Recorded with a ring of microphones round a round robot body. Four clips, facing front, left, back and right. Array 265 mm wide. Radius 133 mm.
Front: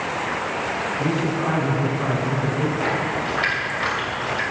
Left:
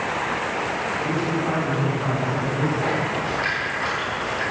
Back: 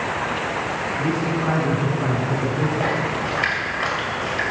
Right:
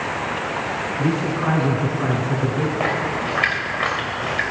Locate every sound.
1.0 s a man speaking: 100° right, 3.5 m; by 2.7 s 120° right, 5 m
2.8 s a splash: 105° right, 2.5 m